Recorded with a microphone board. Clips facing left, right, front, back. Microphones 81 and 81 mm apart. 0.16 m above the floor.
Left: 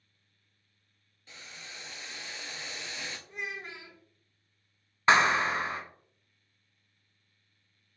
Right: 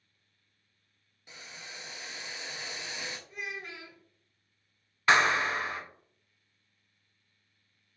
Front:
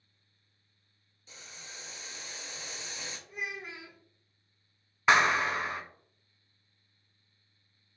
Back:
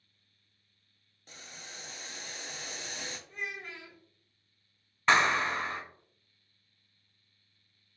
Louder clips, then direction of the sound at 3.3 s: Left 1 dB, front 3 dB; 65° left.